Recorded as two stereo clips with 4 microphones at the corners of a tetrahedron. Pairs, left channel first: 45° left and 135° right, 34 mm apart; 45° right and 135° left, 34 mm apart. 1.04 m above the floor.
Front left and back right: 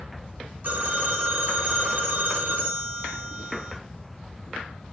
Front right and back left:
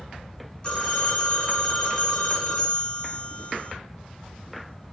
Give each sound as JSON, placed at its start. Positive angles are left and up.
{"t": 0.6, "sound": "a phone ringing", "azimuth_deg": -110, "distance_m": 0.9}